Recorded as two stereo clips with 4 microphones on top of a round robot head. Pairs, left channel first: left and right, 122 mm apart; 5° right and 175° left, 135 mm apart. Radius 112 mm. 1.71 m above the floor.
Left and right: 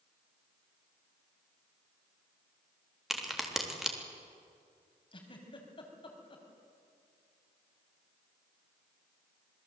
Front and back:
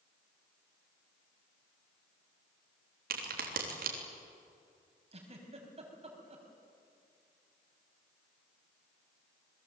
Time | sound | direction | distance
3.1 | a crack | 175° right | 3.5 m
5.1 | a giggle | 135° left | 4.5 m